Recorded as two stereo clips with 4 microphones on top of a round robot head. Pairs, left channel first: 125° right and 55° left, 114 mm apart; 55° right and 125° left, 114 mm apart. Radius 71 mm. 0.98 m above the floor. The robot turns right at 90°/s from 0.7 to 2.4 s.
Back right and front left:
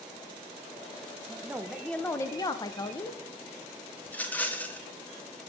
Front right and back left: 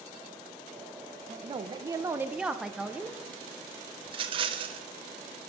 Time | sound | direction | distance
1.3 | a woman speaking | 105° left | 0.7 m
4.1 | a rattle | 160° left | 0.8 m